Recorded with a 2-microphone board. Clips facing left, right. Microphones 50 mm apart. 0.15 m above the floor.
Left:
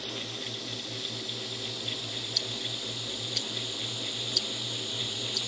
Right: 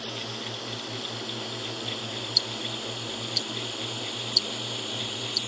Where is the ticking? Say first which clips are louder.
Right 3 dB; 45° left (ahead or behind).